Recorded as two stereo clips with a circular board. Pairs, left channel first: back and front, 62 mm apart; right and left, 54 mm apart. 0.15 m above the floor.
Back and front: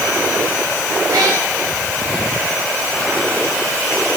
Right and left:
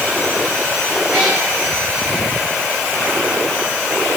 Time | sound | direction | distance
1.1 | a cat meowing | 10° left | 7.5 m